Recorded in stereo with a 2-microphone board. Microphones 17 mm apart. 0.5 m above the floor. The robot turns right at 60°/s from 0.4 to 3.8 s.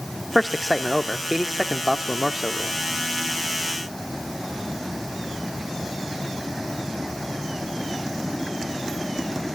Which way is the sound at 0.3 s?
Centre (ahead or behind).